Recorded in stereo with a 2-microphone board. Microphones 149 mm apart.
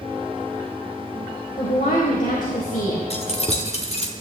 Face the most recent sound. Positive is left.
turn(degrees=45)  # may be behind; listen again after turning